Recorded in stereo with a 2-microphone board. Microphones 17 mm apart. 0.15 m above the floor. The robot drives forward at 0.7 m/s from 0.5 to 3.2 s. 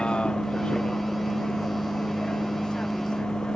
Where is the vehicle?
75° left (ahead or behind); by 3.6 s 70° left (ahead or behind).